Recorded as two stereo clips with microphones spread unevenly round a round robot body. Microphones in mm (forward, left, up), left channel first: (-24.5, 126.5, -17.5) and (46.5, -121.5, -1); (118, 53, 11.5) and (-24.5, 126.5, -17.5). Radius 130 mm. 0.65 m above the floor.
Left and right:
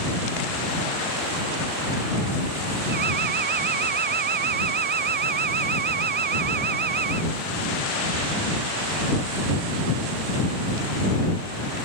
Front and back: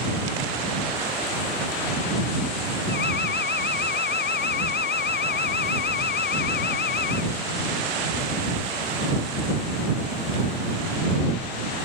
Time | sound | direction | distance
2.9 | an alarm | 20° right | ?